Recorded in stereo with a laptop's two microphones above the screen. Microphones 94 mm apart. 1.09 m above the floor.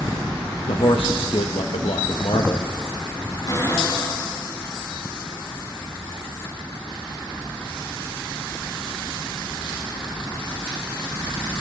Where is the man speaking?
70° left (ahead or behind), 1.0 m.